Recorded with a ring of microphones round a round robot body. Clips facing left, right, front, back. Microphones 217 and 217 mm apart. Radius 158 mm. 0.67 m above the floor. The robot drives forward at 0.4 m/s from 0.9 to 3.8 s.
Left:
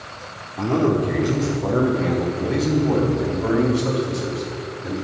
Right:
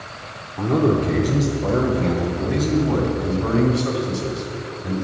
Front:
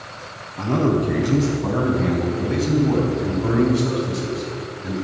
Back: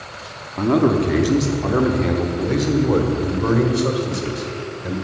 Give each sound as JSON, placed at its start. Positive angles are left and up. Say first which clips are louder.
{"t": 0.6, "sound": "a man speaking", "louder": "right 1 dB, back 3 dB", "azimuth_deg": 175, "distance_m": 1.2}